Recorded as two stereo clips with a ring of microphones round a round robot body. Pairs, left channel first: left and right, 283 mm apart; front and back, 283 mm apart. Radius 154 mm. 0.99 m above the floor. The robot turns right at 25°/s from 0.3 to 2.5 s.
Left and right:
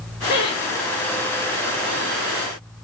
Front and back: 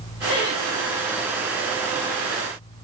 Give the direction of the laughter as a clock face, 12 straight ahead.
11 o'clock.